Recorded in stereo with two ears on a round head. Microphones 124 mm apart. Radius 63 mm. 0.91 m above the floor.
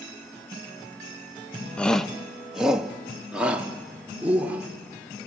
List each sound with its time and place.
1.8 s a shout: 10° left (ahead or behind), 0.7 m; by 4.7 s 10° right (ahead or behind), 3 m